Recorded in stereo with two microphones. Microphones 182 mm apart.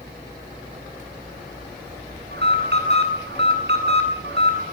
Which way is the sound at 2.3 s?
70° right (ahead or behind).